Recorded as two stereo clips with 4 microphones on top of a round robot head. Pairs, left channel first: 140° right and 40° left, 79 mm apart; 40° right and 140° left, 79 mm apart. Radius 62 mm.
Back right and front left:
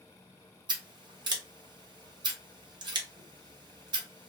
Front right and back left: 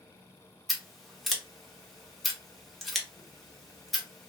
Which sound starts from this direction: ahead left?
Scissors, at 0.7 s.